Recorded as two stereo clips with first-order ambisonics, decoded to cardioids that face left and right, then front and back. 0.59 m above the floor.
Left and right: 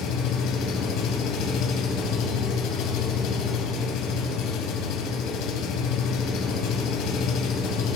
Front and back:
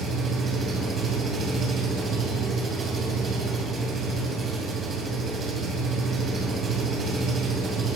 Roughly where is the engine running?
Behind left.